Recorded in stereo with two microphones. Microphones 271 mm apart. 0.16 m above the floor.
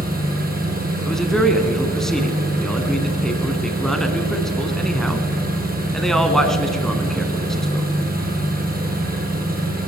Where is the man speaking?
Centre (ahead or behind), 1.5 m.